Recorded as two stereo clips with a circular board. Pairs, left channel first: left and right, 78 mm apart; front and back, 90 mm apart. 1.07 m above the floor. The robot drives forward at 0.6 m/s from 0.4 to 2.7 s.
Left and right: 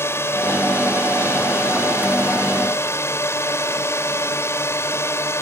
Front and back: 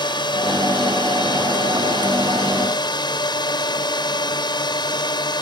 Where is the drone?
35° left.